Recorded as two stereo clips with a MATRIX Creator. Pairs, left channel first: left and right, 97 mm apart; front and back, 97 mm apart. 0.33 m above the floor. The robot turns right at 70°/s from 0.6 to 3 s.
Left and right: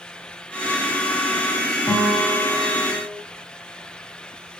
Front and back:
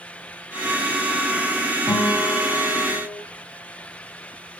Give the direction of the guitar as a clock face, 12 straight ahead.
11 o'clock.